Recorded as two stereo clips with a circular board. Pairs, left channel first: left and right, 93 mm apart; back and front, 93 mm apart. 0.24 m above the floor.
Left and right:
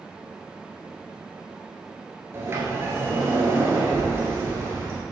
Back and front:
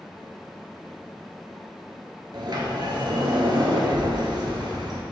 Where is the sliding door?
30° right, 1.4 m.